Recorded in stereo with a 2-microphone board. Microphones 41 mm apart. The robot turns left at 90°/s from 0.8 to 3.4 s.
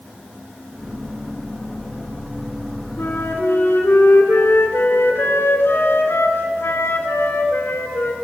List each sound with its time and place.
3.0 s a flute: 110° left, 3 m; by 8.1 s 70° left, 3 m